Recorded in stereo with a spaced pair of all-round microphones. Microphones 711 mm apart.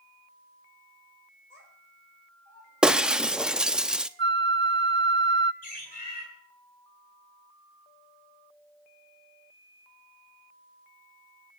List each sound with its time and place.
1.5 s a child speaking: 85° left, 5 m
2.8 s breaking glass: centre (ahead or behind), 0.6 m
4.2 s a flute: 40° right (ahead or behind), 0.8 m
5.6 s a bird: 60° left (ahead or behind), 8.5 m